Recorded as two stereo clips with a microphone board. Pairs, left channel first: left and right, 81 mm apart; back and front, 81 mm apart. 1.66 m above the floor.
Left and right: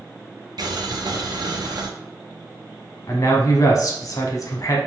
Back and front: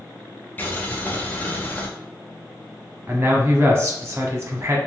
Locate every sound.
0.6 s boiling: 115° right, 0.5 m
3.1 s a man speaking: 55° left, 0.8 m